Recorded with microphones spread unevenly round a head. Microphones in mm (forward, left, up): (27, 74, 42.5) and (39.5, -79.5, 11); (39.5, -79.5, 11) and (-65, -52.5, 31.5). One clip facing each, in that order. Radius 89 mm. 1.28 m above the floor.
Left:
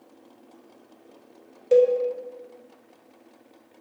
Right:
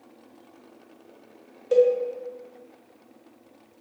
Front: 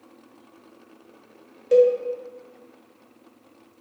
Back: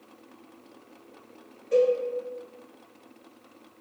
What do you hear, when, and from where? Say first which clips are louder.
1.7 s a cowbell: left 1 dB, front 6 dB; 20° left, 0.5 m